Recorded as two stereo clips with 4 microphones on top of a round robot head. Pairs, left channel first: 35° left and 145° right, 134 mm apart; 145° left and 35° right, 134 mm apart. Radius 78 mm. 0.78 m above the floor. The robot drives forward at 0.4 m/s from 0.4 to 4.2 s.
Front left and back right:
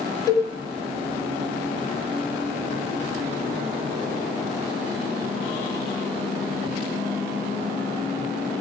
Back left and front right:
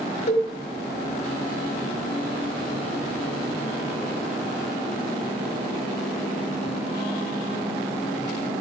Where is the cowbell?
100° left, 1.7 m; by 0.5 s 105° left, 1.7 m.